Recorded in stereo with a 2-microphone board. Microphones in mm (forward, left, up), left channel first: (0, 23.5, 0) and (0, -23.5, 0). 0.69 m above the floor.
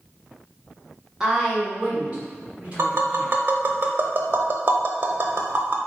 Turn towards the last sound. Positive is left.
turn(degrees=-50)  # may be behind; listen again after turning